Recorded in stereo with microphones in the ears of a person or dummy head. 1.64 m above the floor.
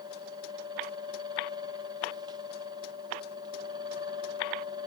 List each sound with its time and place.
0.0 s a fan: 30° right (ahead or behind), 1.4 m